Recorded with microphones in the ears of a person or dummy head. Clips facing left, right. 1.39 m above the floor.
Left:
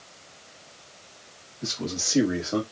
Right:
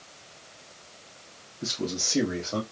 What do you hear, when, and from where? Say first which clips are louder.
1.6 s a man speaking: right 1 dB; 15° right (ahead or behind), 1.4 m; by 2.6 s 25° left (ahead or behind), 1.8 m